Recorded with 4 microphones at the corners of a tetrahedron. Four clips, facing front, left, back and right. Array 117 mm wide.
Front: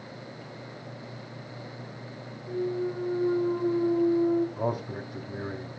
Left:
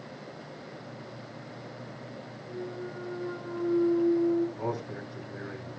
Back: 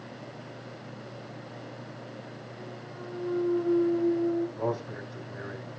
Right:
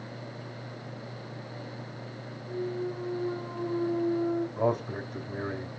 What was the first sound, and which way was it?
A clunk, 5° right.